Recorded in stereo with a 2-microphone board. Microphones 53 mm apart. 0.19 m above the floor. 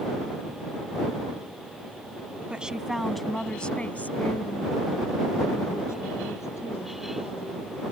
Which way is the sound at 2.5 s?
20° right (ahead or behind).